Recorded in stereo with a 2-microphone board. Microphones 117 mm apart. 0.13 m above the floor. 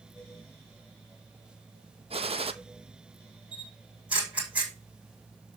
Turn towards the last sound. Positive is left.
turn(degrees=-10)  # may be behind; listen again after turning